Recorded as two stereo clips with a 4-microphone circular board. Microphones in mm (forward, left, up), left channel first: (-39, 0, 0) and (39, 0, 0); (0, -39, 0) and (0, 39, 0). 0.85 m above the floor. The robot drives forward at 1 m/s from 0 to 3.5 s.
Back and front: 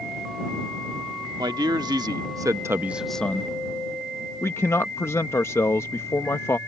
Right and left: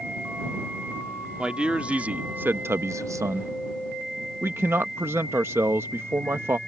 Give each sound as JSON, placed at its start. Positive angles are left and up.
{"t": 1.4, "sound": "a man speaking", "azimuth_deg": 15}